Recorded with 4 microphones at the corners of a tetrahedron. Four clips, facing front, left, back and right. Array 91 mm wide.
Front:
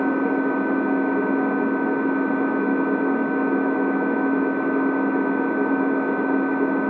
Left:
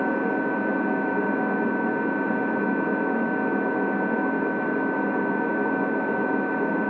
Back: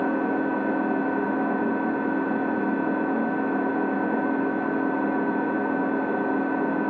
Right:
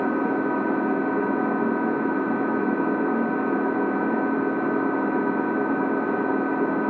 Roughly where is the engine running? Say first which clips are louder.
Right 1 dB, front 3 dB; ahead right.